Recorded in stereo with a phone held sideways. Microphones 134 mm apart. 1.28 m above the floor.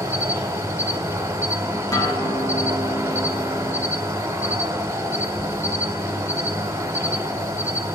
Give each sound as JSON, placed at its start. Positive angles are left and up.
{"t": 0.0, "sound": "an insect", "side_deg": -20, "distance_m": 1.1}
{"t": 1.9, "sound": "a guitar", "side_deg": 30, "distance_m": 1.2}